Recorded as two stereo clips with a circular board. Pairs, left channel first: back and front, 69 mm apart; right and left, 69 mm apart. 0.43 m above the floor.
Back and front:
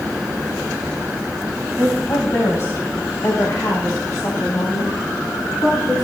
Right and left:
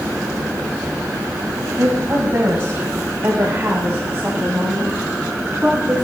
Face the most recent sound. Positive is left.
turn(degrees=165)